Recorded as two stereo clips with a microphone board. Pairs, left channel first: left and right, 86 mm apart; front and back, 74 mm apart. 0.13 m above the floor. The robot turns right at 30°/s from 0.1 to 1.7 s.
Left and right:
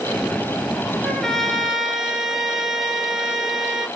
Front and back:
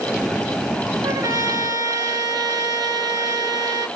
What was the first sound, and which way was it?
A trumpet, 165° left.